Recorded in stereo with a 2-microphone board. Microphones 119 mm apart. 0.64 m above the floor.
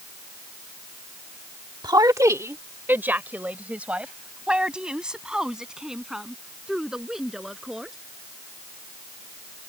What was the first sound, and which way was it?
A woman speaking, 35° right (ahead or behind).